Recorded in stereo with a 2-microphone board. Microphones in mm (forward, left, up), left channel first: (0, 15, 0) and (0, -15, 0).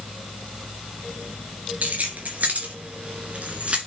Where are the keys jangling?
65° right (ahead or behind), 2.5 m; by 3.8 s 45° right (ahead or behind), 1.9 m.